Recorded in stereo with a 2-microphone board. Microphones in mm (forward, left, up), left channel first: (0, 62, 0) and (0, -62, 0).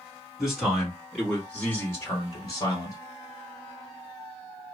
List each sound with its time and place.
0.4 s a man speaking: 5° right (ahead or behind), 2 m; by 3.0 s 35° left (ahead or behind), 1.9 m